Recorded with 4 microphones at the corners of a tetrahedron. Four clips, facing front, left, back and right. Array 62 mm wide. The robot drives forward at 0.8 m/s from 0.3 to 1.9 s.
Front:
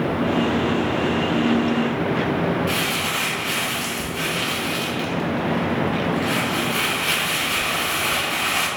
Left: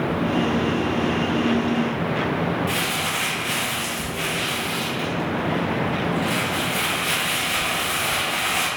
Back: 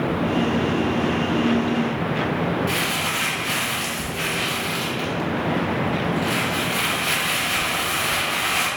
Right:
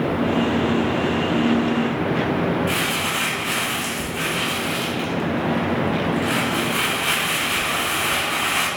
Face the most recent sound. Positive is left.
turn(degrees=-100)